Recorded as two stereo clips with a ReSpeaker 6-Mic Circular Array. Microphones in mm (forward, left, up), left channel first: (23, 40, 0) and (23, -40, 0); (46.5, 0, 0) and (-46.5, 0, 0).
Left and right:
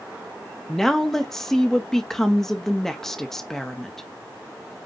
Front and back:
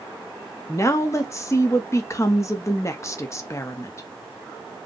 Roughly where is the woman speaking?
Ahead.